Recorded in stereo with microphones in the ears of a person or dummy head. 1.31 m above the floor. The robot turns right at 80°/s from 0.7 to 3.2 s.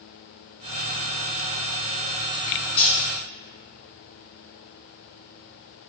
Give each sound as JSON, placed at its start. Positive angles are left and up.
{"t": 2.8, "sound": "cutlery clinking", "side_deg": 55, "distance_m": 1.1}